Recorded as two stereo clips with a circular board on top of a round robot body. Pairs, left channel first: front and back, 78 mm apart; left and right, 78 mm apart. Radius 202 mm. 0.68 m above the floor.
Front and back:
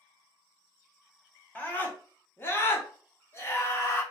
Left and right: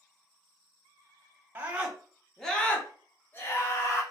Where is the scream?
50° right, 1.2 m; by 4.0 s 50° left, 1.6 m.